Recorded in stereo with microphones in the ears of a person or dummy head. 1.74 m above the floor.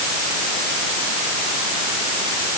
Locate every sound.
Only background noise.